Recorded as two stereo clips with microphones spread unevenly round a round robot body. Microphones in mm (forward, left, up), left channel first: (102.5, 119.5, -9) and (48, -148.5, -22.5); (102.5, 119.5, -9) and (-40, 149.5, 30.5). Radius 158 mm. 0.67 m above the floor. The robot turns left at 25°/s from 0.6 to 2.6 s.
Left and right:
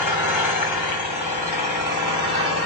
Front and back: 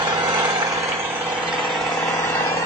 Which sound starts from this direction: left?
An engine running, at 0.0 s.